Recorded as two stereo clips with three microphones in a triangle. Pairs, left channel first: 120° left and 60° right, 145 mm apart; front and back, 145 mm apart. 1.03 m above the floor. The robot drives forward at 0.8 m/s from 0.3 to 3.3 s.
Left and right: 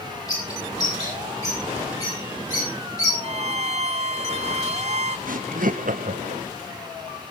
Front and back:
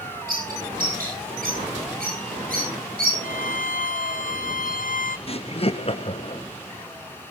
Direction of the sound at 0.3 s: 175° right.